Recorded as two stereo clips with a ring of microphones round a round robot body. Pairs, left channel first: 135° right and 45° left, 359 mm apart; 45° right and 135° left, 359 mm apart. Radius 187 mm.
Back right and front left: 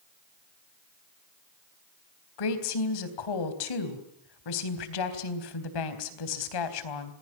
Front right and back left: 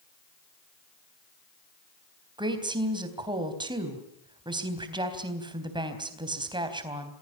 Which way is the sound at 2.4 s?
145° right.